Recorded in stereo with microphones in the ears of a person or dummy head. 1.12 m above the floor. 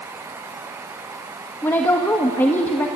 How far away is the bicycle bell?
No bicycle bell in this recording.